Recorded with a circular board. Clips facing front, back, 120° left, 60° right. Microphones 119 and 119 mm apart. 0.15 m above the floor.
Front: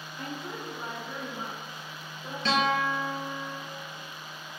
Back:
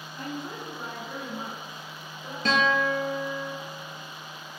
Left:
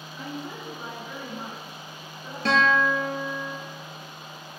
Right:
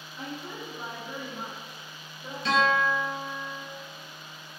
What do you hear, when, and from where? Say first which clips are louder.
0.2 s a woman speaking: back 2 dB, left 2 dB; 160° right, 1.8 m; by 2.4 s 65° right, 2 m
2.5 s a guitar: back 2 dB, left 2 dB; 140° left, 0.7 m